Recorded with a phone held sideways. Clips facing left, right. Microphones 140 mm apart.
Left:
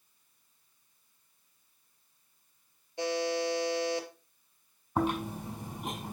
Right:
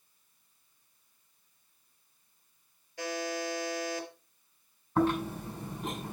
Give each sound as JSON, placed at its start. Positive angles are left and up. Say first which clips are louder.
{"t": 3.0, "sound": "a buzzer", "louder": "left 4 dB", "side_deg": 25, "distance_m": 3.0}
{"t": 5.0, "sound": "chewing", "louder": "right 3 dB", "side_deg": 15, "distance_m": 4.5}